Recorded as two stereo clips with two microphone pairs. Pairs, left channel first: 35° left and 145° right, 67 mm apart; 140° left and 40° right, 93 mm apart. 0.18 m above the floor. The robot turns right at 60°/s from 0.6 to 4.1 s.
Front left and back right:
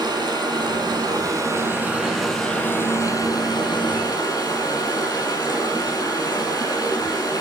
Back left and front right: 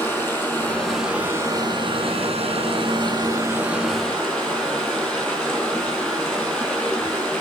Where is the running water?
155° right, 4 m; by 7.4 s 55° left, 4 m.